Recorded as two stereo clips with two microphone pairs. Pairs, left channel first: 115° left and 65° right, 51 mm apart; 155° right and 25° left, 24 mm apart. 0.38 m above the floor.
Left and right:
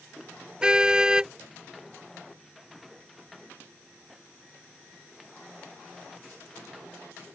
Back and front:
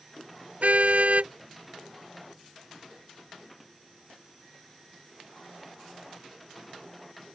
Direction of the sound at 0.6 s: 15° left.